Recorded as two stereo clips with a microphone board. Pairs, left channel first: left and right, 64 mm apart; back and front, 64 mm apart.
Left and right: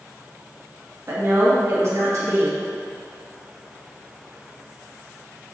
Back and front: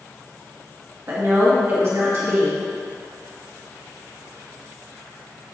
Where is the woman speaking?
45° right, 2 m.